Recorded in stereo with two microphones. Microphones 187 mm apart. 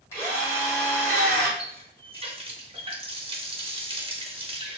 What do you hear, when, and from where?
0.1 s a drill: 15° left (ahead or behind), 1.4 m
1.6 s a running tap: 30° right (ahead or behind), 0.5 m